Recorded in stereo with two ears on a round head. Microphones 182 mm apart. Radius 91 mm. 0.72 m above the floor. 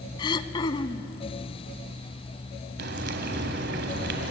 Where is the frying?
55° right (ahead or behind), 2 m.